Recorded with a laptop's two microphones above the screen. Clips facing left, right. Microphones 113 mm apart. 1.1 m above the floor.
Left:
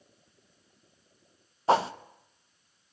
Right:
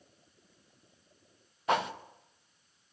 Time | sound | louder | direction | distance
1.7 | a whoosh | left 6 dB | 30° left (ahead or behind) | 0.7 m